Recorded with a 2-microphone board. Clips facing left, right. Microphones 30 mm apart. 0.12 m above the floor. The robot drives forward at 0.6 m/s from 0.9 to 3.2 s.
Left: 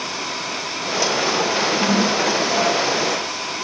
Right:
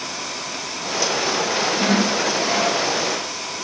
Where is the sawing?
25° right (ahead or behind), 0.9 m; by 2.8 s 20° right (ahead or behind), 1.3 m.